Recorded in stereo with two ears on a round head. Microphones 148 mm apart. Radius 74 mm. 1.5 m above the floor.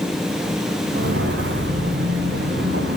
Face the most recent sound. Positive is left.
turn(degrees=-75)  # may be behind; listen again after turning